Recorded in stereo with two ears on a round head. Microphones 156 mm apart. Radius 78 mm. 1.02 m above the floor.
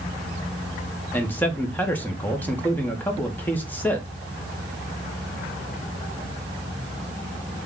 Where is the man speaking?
10° left (ahead or behind), 0.8 m.